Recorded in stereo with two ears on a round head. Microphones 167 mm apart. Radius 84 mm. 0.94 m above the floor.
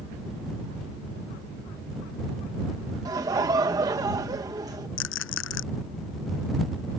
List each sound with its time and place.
3.0 s laughter: 20° right (ahead or behind)
5.0 s a rattle: 80° left